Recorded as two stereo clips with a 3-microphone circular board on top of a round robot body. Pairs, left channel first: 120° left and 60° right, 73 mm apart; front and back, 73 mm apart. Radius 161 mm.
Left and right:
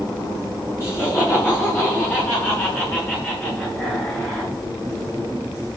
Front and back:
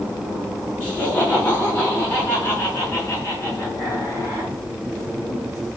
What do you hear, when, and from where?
0.8 s laughter: 70° left, 6.5 m; by 4.5 s 50° left, 7.5 m